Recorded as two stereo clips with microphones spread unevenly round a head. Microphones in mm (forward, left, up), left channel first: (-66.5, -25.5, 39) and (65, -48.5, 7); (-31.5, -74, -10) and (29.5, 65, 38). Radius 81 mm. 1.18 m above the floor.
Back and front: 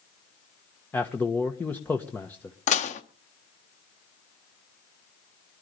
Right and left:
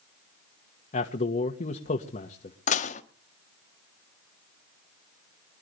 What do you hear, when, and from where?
0.9 s a man speaking: 105° right, 1.3 m
2.7 s dishes clattering: 160° right, 1.3 m